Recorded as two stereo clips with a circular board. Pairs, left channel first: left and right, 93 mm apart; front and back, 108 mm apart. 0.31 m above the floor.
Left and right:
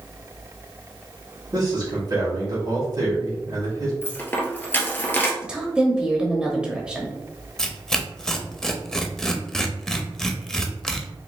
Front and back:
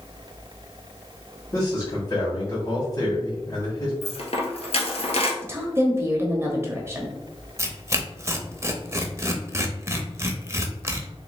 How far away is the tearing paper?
About 0.6 m.